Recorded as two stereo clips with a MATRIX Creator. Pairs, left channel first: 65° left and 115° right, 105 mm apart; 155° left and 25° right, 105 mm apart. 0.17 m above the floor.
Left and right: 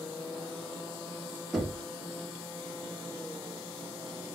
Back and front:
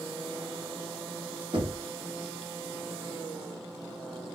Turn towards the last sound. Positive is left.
turn(degrees=-25)